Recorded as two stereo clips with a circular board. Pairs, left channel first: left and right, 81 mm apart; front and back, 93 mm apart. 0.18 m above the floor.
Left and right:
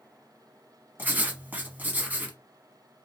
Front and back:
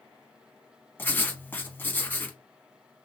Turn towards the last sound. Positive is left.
turn(degrees=-45)